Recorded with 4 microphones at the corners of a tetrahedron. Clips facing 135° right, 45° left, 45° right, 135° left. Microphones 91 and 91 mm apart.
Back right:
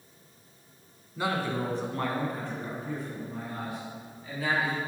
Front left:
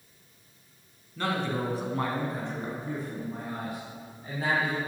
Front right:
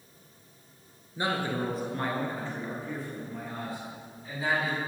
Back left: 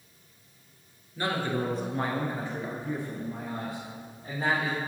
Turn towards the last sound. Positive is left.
turn(degrees=90)